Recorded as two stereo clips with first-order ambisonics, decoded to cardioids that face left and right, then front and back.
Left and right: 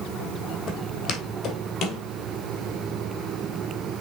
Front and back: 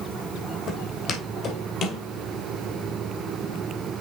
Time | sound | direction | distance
0.7 | footsteps | 40° left | 2.5 m